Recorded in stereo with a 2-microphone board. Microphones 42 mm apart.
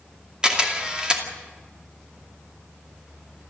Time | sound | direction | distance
0.4 | a camera shutter | 20° right (ahead or behind) | 2.5 m